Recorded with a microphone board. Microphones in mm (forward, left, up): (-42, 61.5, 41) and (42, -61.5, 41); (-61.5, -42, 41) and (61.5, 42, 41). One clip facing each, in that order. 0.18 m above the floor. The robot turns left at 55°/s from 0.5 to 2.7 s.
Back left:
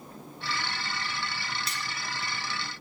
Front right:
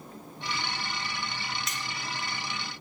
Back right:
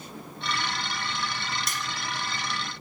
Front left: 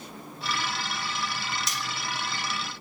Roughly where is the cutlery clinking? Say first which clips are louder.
Back left 1 dB, even; behind.